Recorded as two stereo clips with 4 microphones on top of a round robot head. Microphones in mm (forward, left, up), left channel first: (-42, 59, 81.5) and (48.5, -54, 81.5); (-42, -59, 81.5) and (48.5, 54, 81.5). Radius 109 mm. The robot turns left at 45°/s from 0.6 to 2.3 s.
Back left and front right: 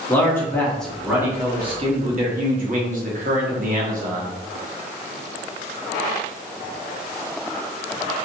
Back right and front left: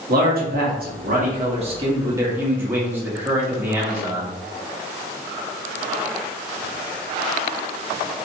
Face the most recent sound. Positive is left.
turn(degrees=-25)